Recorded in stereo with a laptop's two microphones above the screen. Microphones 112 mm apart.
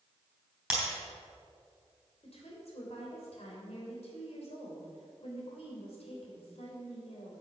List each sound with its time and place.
0.7 s breaking glass: 5° right (ahead or behind), 3.5 m
2.2 s a woman speaking: 70° left (ahead or behind), 3 m